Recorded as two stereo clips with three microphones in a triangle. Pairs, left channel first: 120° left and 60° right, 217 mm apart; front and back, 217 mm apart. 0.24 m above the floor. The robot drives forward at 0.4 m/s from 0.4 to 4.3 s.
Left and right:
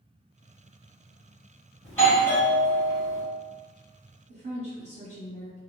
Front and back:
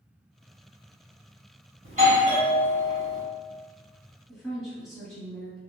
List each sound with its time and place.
1.8 s a doorbell: 170° right, 1.6 m
4.3 s a woman speaking: 90° right, 1.6 m